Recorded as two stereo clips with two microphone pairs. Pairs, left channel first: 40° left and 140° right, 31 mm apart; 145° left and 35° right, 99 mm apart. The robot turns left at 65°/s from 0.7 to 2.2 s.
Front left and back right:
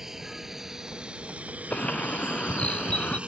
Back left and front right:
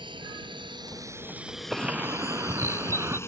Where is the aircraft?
65° right; by 3.3 s 165° right.